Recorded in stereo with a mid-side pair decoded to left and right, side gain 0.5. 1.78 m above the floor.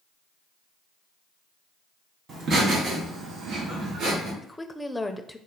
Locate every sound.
2.3 s laughter: 50° right, 2 m; by 4.3 s 70° right, 3 m
4.4 s a woman speaking: 10° left, 0.5 m